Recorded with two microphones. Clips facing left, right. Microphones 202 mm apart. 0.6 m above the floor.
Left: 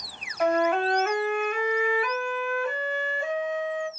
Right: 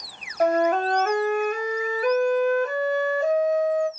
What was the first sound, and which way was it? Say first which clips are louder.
A flute: right 2 dB; 40° right (ahead or behind).